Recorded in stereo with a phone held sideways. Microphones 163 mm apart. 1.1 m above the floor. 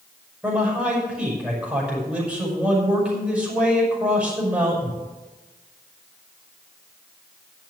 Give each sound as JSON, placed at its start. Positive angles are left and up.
{"t": 0.4, "sound": "a man speaking", "side_deg": -5, "distance_m": 6.0}